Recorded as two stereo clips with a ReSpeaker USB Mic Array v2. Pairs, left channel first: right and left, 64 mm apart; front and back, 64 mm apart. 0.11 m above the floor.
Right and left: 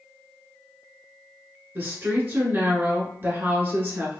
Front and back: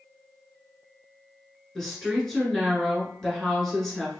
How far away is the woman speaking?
About 1.2 m.